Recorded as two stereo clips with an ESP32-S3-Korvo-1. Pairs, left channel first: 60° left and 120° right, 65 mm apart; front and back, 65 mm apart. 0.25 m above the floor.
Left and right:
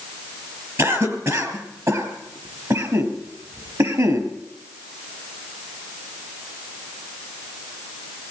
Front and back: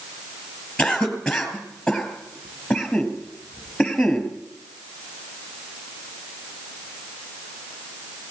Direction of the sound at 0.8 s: 80° right.